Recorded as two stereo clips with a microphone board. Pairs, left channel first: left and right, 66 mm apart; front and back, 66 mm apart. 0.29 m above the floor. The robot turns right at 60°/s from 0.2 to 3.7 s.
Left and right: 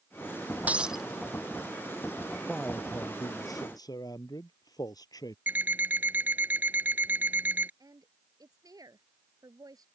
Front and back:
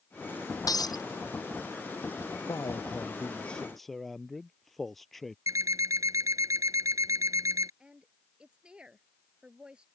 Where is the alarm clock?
150° right.